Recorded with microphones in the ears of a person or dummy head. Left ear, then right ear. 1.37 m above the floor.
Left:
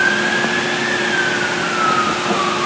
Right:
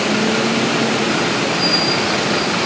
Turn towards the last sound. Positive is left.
No sound to turn to.